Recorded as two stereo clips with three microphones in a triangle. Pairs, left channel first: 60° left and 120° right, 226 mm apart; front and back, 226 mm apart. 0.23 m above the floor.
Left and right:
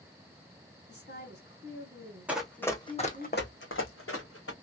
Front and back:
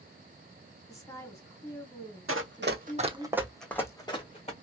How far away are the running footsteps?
About 0.9 m.